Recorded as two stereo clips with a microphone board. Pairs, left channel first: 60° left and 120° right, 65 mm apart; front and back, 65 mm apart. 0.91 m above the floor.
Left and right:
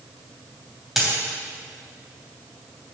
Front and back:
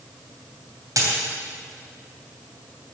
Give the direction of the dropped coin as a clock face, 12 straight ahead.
7 o'clock.